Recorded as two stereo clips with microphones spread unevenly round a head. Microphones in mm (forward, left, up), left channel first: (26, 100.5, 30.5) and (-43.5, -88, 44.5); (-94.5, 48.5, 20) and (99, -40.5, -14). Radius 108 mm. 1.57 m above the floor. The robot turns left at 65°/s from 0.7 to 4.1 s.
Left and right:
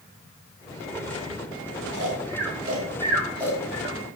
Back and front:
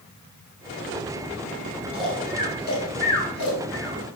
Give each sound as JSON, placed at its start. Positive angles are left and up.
{"t": 1.9, "sound": "snoring", "azimuth_deg": -110, "distance_m": 1.5}